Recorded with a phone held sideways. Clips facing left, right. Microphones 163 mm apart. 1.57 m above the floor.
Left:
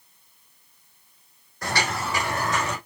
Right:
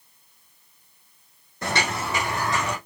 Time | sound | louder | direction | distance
1.6 | footsteps | right 1 dB | 20° right (ahead or behind) | 4 m